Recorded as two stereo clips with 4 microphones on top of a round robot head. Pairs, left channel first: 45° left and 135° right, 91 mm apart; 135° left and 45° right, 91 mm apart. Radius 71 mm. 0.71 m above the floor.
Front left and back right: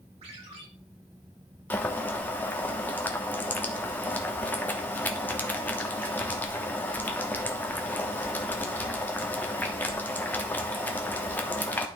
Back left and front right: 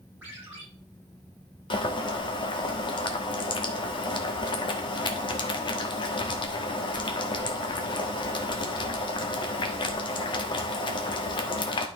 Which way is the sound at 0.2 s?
115° right.